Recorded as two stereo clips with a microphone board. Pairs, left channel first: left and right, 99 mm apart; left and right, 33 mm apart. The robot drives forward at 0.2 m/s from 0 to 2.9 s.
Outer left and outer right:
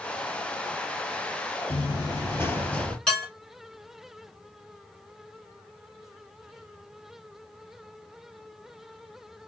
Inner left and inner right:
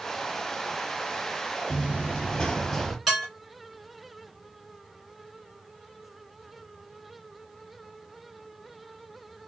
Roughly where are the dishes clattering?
Centre.